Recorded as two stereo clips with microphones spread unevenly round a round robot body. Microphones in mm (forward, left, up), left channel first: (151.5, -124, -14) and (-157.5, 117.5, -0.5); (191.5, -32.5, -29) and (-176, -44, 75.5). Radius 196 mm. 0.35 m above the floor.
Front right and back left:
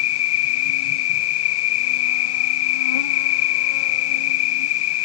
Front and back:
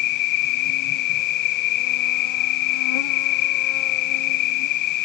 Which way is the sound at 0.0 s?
20° right.